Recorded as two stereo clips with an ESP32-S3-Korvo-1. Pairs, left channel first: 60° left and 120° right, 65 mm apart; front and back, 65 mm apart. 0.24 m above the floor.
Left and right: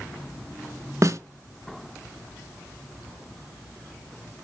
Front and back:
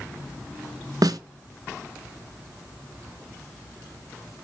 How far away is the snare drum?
About 0.5 m.